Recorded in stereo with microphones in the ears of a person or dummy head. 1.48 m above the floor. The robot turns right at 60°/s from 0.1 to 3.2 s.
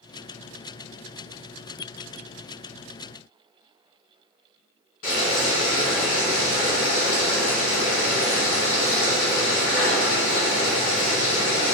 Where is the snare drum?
I don't hear a snare drum.